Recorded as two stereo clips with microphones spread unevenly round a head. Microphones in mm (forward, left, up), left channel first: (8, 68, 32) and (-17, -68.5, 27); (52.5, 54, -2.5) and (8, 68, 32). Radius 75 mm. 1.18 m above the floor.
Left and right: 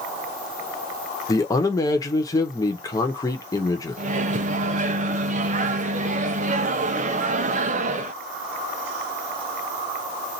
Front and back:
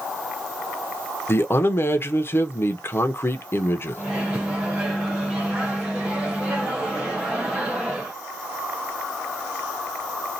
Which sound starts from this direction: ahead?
A man speaking, at 1.3 s.